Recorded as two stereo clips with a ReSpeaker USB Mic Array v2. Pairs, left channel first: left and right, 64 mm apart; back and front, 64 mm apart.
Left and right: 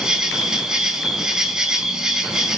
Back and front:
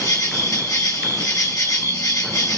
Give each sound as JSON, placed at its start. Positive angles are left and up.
{"t": 0.0, "sound": "an insect", "azimuth_deg": -170, "distance_m": 1.0}